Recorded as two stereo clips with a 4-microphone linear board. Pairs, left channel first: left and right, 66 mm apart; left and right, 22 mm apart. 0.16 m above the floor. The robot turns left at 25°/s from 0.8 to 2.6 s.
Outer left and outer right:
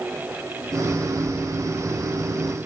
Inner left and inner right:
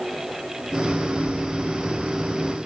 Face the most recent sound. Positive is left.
No sound to turn to.